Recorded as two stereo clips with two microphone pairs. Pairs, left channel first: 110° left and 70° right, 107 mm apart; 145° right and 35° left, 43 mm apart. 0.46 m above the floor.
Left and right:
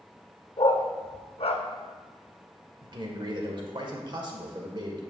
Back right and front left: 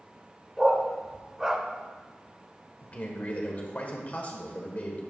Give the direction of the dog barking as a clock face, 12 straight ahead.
8 o'clock.